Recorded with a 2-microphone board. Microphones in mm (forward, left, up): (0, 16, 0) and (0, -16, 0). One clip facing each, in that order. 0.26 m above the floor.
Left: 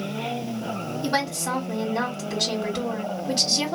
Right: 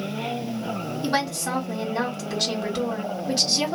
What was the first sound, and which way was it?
A woman speaking, centre (ahead or behind).